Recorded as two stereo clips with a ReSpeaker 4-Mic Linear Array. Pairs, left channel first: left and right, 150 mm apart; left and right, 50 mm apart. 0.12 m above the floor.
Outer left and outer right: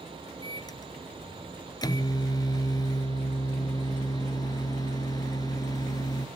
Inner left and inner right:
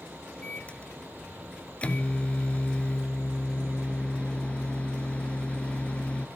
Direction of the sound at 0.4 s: 25° left (ahead or behind).